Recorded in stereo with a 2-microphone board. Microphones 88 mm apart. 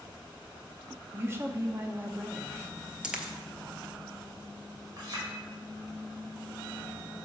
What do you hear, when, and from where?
1.1 s a woman speaking: 30° right (ahead or behind), 0.6 m
3.0 s a dropped coin: 10° right (ahead or behind), 0.8 m
5.0 s a clink: 50° right (ahead or behind), 2 m